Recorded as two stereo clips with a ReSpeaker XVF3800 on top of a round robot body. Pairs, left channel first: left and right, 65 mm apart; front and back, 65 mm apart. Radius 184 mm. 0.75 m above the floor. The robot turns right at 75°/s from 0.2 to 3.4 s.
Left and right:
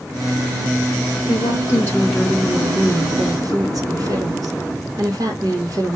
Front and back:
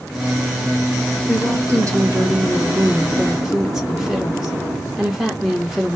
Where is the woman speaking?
105° left, 1.9 m; by 6.0 s 100° right, 1.9 m.